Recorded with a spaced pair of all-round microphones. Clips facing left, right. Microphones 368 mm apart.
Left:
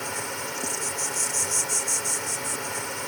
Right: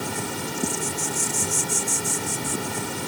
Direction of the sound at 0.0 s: 50° right (ahead or behind).